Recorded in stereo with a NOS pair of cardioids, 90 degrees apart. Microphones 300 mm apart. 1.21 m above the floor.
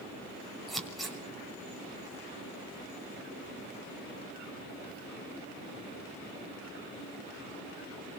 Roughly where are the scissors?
Ahead.